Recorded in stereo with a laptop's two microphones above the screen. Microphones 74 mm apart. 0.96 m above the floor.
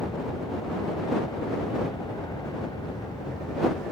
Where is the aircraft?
70° left (ahead or behind); by 3.9 s 75° left (ahead or behind).